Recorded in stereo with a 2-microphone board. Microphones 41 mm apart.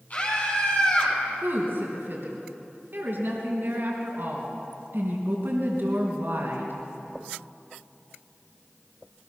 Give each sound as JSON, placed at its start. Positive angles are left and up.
{"t": 0.1, "sound": "a scream", "side_deg": 35, "distance_m": 10.0}
{"t": 1.4, "sound": "a woman speaking", "side_deg": -60, "distance_m": 3.5}